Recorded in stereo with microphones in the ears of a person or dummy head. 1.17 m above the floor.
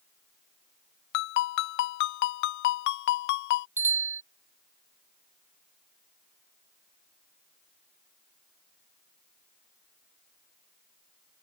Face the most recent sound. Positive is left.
turn(degrees=-15)  # may be behind; listen again after turning